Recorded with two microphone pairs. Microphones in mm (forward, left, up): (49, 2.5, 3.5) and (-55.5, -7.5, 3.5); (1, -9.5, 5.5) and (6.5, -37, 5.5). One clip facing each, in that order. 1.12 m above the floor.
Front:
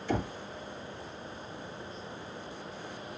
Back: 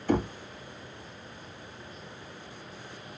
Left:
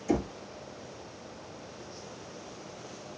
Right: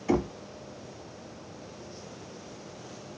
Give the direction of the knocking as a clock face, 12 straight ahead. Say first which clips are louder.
Back 5 dB, right 2 dB; 4 o'clock.